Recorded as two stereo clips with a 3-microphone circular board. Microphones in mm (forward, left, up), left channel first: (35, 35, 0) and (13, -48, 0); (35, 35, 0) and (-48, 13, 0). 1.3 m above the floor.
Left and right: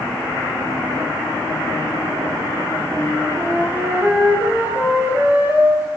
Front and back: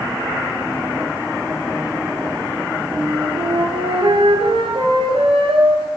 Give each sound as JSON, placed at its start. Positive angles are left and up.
{"t": 2.9, "sound": "a flute", "azimuth_deg": -175, "distance_m": 7.5}